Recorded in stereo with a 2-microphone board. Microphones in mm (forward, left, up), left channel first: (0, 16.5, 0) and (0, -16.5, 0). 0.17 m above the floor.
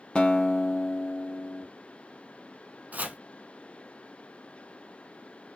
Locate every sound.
0.1 s a guitar: 25° left (ahead or behind), 0.6 m
2.9 s chopping: 55° right (ahead or behind), 0.5 m